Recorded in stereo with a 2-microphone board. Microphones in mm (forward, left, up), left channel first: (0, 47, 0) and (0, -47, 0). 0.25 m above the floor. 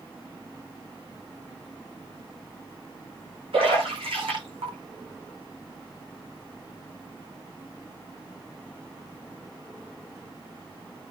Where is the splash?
80° right, 9.5 m.